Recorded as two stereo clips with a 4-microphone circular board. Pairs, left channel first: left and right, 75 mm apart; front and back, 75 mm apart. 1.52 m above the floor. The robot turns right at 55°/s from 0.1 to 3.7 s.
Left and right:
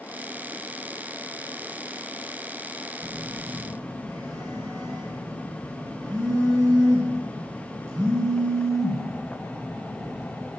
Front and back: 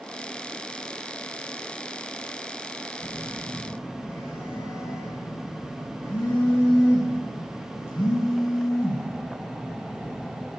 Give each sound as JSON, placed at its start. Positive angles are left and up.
{"t": 3.0, "sound": "a phone buzzing", "azimuth_deg": -100, "distance_m": 7.0}